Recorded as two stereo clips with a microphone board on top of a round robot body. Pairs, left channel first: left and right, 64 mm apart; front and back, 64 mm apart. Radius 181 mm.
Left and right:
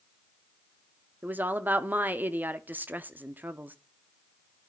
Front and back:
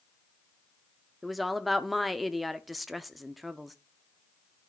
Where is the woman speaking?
90° right, 0.9 m.